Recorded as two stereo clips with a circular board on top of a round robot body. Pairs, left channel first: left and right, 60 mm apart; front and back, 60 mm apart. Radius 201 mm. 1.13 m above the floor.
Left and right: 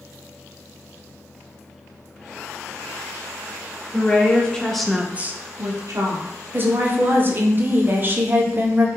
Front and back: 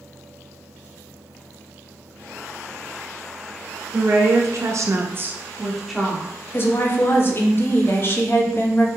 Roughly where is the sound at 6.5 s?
Ahead right.